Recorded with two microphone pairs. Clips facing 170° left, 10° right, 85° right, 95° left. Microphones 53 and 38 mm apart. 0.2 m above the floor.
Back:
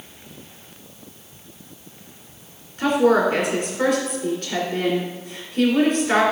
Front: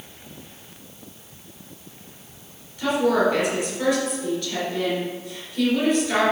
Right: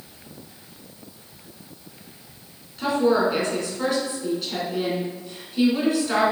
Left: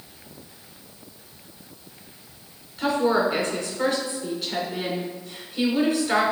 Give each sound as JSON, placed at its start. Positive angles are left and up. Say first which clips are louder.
{"t": 2.8, "sound": "a woman speaking", "louder": "back 3 dB, right 1 dB", "azimuth_deg": 180, "distance_m": 2.5}